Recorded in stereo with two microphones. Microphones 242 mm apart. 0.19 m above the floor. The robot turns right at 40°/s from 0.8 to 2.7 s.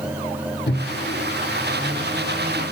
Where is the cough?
No cough in this recording.